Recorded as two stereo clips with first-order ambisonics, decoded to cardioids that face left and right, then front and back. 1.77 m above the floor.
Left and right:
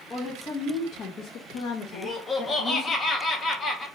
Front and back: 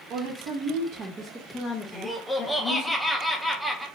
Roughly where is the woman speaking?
Behind left.